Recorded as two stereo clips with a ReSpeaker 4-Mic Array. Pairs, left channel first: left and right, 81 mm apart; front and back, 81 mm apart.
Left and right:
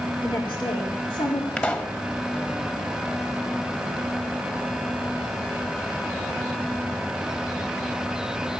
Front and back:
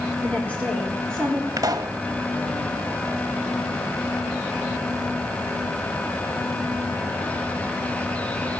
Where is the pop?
155° left, 1.2 m.